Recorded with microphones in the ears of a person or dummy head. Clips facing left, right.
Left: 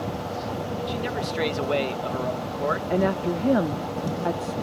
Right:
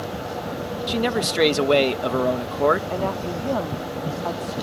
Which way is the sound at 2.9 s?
20° left (ahead or behind).